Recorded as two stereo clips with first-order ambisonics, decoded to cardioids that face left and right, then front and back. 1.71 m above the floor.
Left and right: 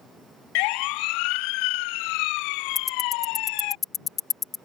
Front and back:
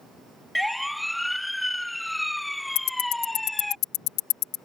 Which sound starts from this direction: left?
A siren, at 0.6 s.